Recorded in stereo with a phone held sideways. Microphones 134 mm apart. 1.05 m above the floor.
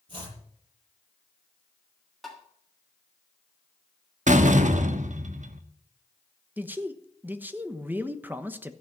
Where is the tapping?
Centre (ahead or behind), 2.5 m.